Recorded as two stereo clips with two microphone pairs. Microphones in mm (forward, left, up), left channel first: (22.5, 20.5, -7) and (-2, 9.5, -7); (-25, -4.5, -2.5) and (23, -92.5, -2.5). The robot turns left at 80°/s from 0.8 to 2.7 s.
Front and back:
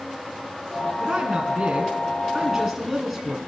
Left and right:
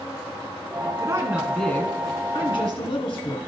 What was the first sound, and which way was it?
A woman speaking, 105° right.